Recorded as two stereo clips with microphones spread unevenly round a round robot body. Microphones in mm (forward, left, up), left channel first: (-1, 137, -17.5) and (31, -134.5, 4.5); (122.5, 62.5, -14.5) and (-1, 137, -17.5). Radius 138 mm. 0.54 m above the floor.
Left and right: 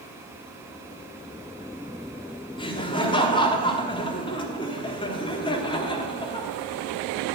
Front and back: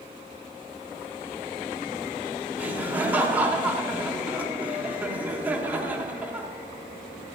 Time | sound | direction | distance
2.6 | laughter | 95° left | 1.1 m